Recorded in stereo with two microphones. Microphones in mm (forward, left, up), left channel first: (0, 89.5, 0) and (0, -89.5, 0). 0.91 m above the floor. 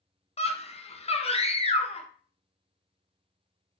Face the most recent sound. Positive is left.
turn(degrees=35)  # may be behind; listen again after turning